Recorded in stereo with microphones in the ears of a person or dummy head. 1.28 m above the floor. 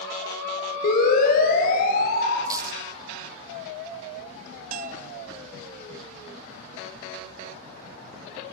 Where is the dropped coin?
25° right (ahead or behind), 1.2 m.